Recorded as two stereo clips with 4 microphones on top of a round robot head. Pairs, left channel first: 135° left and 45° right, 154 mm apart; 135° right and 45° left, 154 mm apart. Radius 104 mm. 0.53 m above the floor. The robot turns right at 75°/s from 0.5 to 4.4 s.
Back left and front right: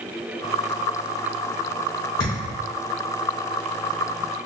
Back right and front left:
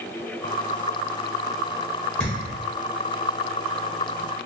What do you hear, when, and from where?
2.2 s a thud: 145° left, 0.7 m; by 2.6 s 175° left, 0.7 m